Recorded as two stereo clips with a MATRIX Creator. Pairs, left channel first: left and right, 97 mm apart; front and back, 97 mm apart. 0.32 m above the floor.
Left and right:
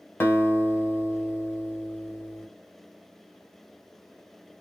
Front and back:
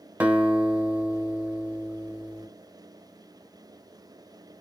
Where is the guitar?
125° left, 0.9 m.